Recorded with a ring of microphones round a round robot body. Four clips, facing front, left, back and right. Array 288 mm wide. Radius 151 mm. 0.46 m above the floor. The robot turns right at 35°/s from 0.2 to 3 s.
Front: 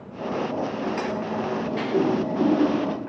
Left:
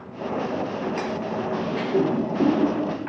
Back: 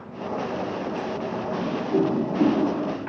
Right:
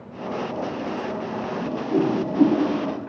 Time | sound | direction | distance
1.6 | a whoosh | 135° right | 1.6 m